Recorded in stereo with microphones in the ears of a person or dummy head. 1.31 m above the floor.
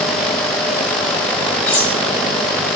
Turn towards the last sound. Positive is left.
turn(degrees=10)  # may be behind; listen again after turning